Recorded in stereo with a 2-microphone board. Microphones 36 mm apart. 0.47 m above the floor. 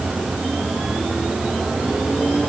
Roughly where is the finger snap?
I don't hear a finger snap.